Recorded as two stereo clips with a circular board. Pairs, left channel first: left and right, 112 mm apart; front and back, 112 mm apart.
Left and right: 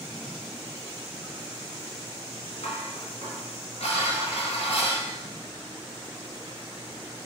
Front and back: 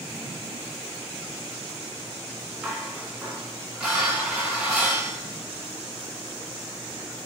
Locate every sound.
2.6 s dishes clattering: 105° left, 2.0 m